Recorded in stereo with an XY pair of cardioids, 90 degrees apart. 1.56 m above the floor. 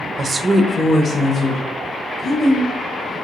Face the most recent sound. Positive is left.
turn(degrees=75)